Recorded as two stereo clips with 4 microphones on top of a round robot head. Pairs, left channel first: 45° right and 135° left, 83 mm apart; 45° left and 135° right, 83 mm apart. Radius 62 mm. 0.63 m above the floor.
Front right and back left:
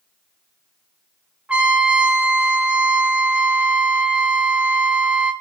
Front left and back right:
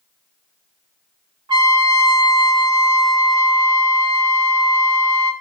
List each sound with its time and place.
1.5 s a trumpet: 150° right, 1.7 m